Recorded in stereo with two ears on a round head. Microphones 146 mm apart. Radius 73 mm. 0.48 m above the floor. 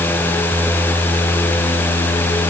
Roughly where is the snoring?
No snoring in this recording.